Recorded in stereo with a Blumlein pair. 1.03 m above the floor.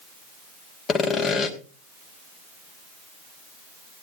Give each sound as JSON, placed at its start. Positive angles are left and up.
{"t": 0.9, "sound": "sawing", "azimuth_deg": 25, "distance_m": 1.2}